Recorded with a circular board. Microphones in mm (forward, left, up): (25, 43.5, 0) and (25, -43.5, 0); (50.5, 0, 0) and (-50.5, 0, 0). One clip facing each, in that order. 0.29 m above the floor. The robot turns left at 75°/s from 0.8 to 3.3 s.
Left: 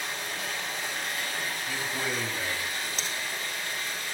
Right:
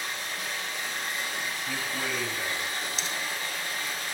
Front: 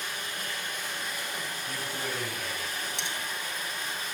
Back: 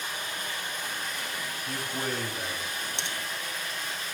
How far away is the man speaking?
About 1.3 m.